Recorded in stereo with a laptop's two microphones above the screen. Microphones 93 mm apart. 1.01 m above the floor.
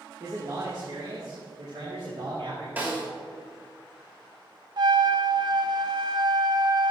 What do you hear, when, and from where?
0.2 s a man speaking: 35° right (ahead or behind), 2 m; by 2.7 s 85° right, 3.5 m
2.8 s a snare drum: 20° right (ahead or behind), 3.5 m
4.8 s a trumpet: 50° right (ahead or behind), 0.5 m